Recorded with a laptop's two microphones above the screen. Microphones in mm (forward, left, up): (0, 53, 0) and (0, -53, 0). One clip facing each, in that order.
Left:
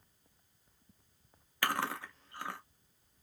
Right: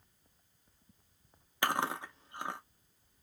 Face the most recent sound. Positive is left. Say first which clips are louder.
# right 2 dB
turn(degrees=-20)  # may be behind; listen again after turning